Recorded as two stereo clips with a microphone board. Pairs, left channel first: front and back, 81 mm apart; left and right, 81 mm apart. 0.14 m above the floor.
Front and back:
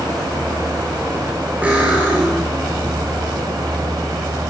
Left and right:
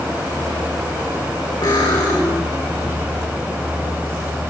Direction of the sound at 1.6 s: 110° left.